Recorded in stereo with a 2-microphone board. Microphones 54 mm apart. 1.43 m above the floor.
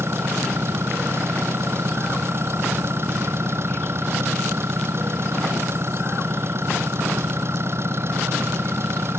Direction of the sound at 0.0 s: 50° right (ahead or behind).